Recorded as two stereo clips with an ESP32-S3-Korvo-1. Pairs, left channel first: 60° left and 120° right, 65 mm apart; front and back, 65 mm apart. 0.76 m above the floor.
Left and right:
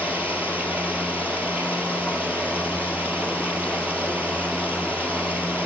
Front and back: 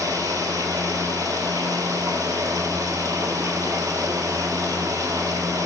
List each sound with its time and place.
0.0 s running water: 175° left, 2 m